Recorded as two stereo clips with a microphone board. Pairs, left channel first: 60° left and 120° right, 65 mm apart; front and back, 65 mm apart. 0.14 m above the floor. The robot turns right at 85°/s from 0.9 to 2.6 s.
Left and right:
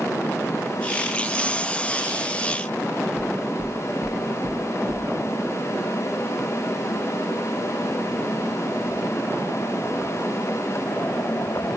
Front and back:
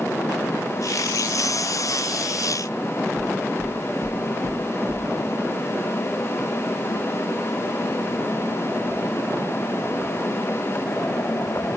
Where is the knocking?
135° right, 7.5 m.